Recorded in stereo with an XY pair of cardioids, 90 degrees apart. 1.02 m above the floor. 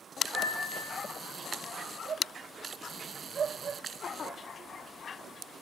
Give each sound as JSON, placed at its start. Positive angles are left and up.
{"t": 0.3, "sound": "a piano", "azimuth_deg": 65, "distance_m": 1.0}